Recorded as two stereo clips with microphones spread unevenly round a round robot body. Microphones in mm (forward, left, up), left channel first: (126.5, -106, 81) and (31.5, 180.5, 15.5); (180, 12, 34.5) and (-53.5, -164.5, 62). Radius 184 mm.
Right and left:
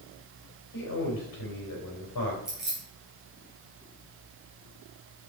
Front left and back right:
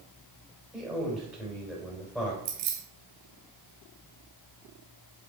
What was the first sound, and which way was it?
A man speaking, 50° right.